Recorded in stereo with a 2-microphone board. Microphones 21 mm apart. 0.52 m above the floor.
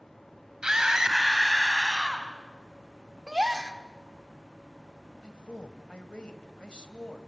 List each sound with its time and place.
0.6 s a scream: 30° right (ahead or behind), 4 m; by 2.3 s 10° right (ahead or behind), 5 m
3.3 s a gasp: 25° right (ahead or behind), 1.4 m
5.2 s a man speaking: 55° left (ahead or behind), 2 m